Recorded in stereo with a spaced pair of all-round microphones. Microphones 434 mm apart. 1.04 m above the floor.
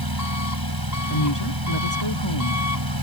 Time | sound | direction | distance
0.0 | an engine running | 55° right (ahead or behind) | ?
1.1 | a woman speaking | 75° left (ahead or behind) | ?